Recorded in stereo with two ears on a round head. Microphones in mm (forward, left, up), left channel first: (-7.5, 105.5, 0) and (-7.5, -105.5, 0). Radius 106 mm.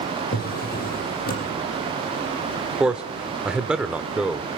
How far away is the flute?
No flute in this recording.